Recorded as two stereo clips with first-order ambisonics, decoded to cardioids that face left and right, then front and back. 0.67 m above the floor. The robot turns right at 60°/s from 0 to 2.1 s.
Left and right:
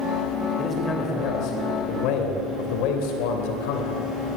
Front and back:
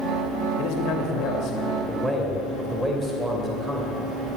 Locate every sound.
0.6 s a man speaking: straight ahead, 2.5 m; by 4.1 s 90° left, 2.5 m